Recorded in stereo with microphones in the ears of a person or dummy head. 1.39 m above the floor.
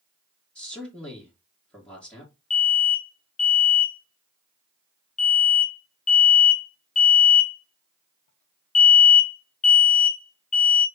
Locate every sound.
0.6 s a man speaking: 5° left (ahead or behind), 1.7 m
2.5 s an alarm: 40° left (ahead or behind), 0.8 m